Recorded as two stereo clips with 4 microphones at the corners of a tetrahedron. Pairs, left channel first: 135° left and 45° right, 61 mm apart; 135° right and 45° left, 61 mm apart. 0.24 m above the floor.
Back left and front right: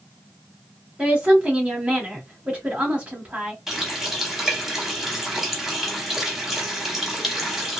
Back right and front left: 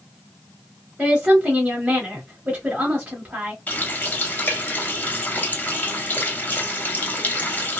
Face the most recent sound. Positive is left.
turn(degrees=-125)